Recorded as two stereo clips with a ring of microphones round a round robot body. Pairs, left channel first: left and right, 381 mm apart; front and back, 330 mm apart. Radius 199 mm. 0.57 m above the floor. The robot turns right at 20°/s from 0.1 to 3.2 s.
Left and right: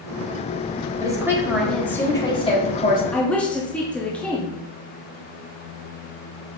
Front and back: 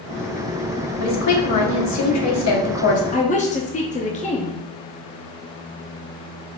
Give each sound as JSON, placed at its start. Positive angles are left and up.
{"t": 1.0, "sound": "a woman speaking", "azimuth_deg": -10, "distance_m": 1.1}
{"t": 3.1, "sound": "a woman speaking", "azimuth_deg": 5, "distance_m": 0.6}